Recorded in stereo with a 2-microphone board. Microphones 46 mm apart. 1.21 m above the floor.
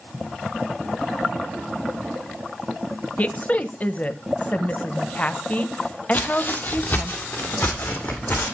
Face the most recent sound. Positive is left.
turn(degrees=45)  # may be behind; listen again after turning